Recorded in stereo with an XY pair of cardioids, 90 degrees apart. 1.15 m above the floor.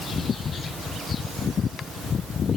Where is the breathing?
No breathing in this recording.